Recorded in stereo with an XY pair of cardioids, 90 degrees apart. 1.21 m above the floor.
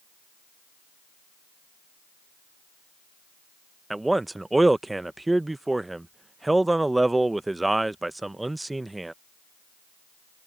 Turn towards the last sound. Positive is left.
turn(degrees=-15)